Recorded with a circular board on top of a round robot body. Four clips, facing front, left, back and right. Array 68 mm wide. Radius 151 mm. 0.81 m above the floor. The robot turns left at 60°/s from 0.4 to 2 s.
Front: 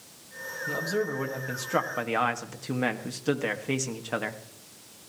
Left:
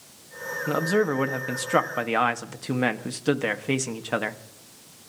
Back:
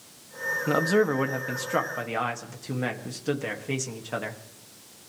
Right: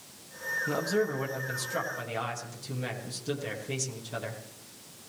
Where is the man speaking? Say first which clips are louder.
Left 7 dB, back 7 dB; 155° left, 1.9 m; by 4.4 s 75° left, 1.9 m.